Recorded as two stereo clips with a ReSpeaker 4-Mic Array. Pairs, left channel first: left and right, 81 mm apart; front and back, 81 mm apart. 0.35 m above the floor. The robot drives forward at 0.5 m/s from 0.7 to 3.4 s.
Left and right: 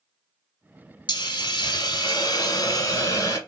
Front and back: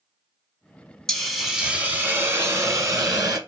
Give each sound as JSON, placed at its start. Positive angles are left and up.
{"t": 1.1, "sound": "a hiss", "azimuth_deg": 85, "distance_m": 0.9}